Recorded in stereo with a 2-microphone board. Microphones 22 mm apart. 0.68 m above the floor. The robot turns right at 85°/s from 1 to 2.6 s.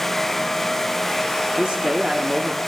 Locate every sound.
1.6 s a man speaking: 100° right, 1.1 m; by 2.6 s 15° right, 1.1 m